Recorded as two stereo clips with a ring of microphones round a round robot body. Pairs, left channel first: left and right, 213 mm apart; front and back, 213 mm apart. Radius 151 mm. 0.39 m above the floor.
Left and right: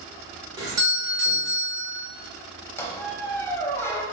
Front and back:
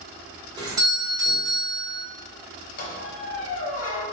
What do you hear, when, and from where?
0.6 s a doorbell: 140° right, 1.3 m
2.8 s a squeak: 10° left, 0.9 m